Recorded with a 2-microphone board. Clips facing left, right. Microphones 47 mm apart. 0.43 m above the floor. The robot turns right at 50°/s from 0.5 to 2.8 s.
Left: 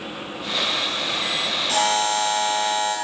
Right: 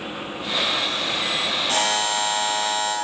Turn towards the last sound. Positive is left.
turn(degrees=10)